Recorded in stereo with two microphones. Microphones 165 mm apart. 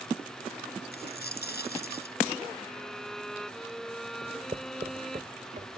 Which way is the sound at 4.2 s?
40° right (ahead or behind).